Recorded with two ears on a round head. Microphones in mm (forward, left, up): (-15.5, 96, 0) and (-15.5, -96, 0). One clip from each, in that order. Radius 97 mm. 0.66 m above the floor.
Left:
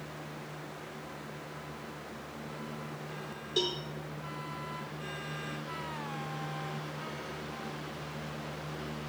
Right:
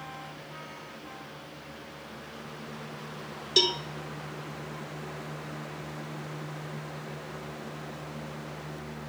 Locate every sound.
3.6 s a cowbell: 50° right (ahead or behind), 0.6 m